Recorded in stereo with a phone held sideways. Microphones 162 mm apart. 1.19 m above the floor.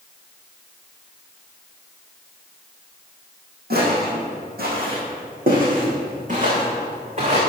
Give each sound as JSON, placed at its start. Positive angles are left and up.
{"t": 3.7, "sound": "footsteps", "side_deg": -75, "distance_m": 4.0}